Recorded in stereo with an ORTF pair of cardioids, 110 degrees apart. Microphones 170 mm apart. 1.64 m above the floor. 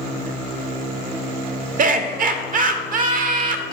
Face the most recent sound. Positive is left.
turn(degrees=-55)